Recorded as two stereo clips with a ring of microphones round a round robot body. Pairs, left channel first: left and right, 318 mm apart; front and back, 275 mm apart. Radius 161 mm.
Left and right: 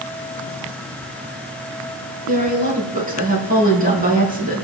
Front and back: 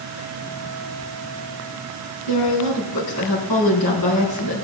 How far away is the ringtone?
I don't hear a ringtone.